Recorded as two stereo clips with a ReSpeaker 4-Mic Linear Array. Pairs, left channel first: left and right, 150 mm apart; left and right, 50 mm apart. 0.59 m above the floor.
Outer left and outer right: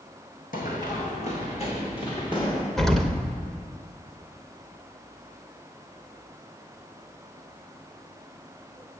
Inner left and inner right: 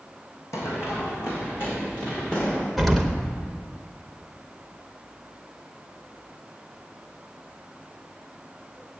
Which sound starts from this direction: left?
Running footsteps, at 0.5 s.